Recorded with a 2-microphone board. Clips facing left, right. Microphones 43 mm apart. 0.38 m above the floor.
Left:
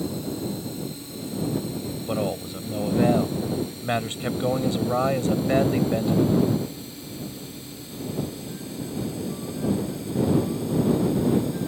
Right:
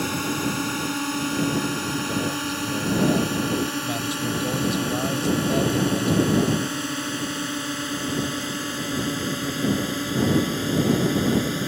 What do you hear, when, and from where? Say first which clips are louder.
0.0 s a drone: right 4 dB; 70° right (ahead or behind)
2.1 s a man speaking: right 1 dB; 35° left (ahead or behind)